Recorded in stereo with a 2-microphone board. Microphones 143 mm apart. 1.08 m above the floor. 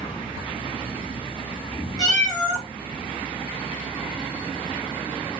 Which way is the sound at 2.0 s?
30° left (ahead or behind).